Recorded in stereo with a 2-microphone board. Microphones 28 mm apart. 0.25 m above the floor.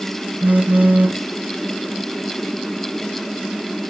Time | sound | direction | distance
0.4 | a phone buzzing | 85° right | 0.7 m